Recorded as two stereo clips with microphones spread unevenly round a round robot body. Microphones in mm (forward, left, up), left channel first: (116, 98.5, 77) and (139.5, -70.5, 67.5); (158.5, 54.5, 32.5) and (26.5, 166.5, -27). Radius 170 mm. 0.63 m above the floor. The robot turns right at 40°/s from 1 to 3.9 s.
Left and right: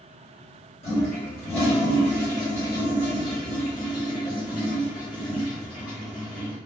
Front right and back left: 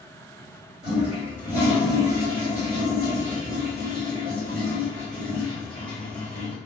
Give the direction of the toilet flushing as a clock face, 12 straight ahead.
9 o'clock.